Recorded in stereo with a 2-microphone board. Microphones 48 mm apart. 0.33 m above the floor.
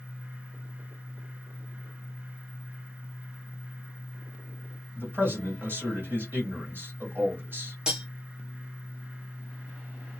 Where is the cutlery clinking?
15° right (ahead or behind), 1.0 m.